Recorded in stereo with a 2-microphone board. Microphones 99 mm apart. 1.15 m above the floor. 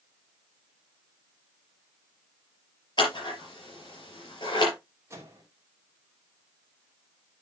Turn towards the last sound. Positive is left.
turn(degrees=-30)  # may be behind; listen again after turning